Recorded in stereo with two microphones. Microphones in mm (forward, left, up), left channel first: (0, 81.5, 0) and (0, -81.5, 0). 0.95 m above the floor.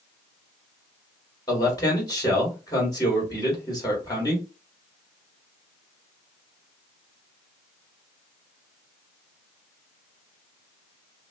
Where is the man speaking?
25° left (ahead or behind), 2.5 m.